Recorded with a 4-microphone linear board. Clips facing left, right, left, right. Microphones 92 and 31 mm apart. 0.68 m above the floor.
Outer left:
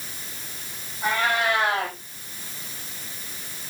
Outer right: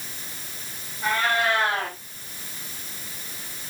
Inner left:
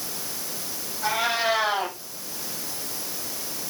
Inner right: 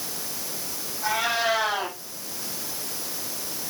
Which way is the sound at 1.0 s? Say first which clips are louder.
Even, even; 20° left (ahead or behind).